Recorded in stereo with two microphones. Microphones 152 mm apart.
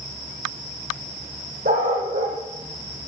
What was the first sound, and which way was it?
A dog barking, 85° right.